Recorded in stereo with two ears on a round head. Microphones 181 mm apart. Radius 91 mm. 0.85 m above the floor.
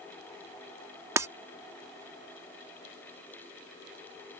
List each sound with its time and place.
1.2 s breaking glass: 15° right (ahead or behind)